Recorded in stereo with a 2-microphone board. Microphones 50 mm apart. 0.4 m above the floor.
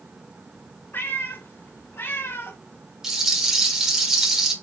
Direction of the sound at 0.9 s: 50° left (ahead or behind).